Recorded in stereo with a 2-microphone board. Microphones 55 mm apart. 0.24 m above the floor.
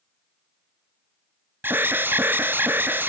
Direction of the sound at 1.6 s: 40° right (ahead or behind).